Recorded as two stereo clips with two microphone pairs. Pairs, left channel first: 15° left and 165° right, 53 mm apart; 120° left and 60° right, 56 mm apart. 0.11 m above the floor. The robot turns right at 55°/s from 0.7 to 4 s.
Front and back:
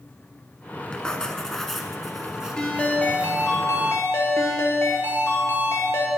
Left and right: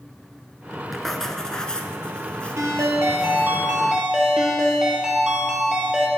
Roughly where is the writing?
Ahead left.